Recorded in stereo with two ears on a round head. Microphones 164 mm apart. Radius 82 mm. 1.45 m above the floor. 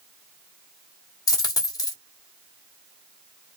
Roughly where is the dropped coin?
Left.